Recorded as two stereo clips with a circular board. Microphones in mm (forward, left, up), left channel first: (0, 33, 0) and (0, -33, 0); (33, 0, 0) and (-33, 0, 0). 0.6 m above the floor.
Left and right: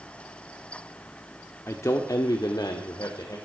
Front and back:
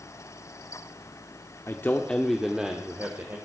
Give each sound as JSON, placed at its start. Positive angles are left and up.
{"t": 1.7, "sound": "a man speaking", "azimuth_deg": 45, "distance_m": 1.3}